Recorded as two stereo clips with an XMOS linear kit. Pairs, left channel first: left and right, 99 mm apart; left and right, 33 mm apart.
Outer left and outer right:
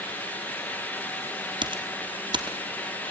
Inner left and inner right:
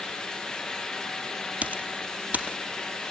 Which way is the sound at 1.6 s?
55° right (ahead or behind).